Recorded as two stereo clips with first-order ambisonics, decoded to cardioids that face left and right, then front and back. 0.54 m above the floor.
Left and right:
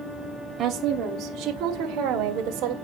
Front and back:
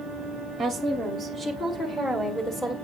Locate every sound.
0.6 s a woman speaking: 105° right, 1.1 m; by 2.7 s 70° right, 2 m